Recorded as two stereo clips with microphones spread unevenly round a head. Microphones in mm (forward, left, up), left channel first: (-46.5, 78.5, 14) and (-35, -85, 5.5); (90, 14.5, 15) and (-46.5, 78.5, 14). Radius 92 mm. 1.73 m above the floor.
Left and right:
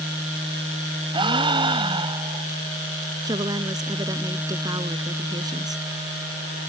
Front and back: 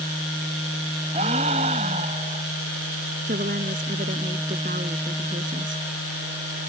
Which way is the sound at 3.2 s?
155° right.